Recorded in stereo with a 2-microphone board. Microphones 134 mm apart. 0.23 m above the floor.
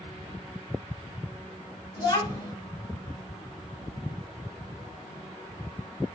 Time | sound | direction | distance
2.0 | a child speaking | 30° left (ahead or behind) | 1.1 m